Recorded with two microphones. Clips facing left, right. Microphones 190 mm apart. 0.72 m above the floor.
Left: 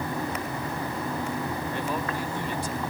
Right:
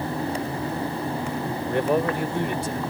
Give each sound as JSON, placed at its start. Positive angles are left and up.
{"t": 1.7, "sound": "a man speaking", "side_deg": -70}